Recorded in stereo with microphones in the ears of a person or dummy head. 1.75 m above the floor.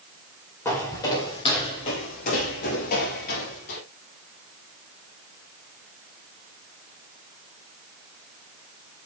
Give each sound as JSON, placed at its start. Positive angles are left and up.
{"t": 0.7, "sound": "footsteps", "side_deg": 15, "distance_m": 1.9}